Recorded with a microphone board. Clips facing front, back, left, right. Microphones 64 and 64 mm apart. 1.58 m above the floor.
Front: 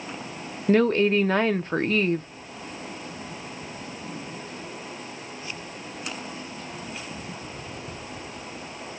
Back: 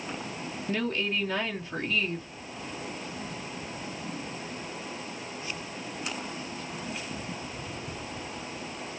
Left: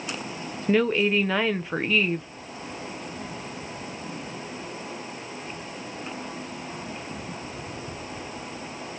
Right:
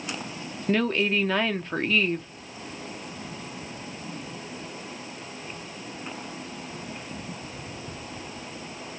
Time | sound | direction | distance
0.7 | a woman speaking | 10° left | 0.6 m